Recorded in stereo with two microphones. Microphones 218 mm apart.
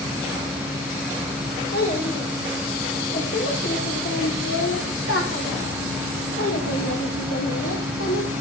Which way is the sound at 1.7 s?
55° left (ahead or behind).